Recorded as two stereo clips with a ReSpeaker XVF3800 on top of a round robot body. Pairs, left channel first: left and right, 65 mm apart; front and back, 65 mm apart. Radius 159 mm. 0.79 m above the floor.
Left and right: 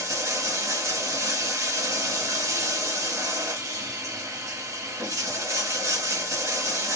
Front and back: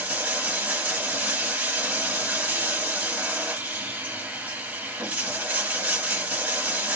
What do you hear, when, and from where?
0.0 s running water: 115° right, 1.3 m